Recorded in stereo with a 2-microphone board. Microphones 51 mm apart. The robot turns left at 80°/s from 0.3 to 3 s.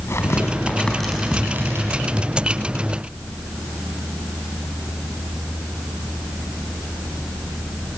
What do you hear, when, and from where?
0.1 s tearing paper: 65° left (ahead or behind), 4 m; by 2.0 s 70° right (ahead or behind), 4 m